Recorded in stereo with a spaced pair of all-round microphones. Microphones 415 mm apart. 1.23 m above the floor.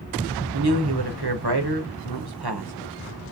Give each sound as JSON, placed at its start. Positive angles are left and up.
{"t": 0.5, "sound": "a man speaking", "side_deg": -65, "distance_m": 1.1}